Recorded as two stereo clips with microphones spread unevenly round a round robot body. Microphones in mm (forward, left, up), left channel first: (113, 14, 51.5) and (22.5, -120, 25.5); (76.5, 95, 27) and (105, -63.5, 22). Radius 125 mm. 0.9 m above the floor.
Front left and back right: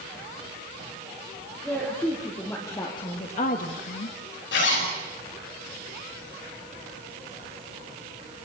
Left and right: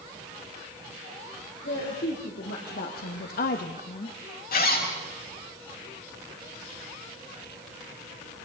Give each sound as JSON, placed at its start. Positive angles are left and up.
{"t": 1.6, "sound": "a woman speaking", "azimuth_deg": 145, "distance_m": 3.5}
{"t": 4.5, "sound": "a zipper", "azimuth_deg": 75, "distance_m": 6.0}